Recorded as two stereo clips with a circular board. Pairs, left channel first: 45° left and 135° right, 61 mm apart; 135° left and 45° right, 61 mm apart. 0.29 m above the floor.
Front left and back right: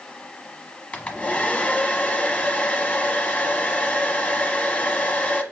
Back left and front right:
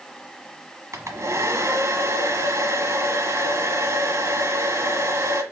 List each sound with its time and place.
0.9 s a hair dryer: 20° right, 1.0 m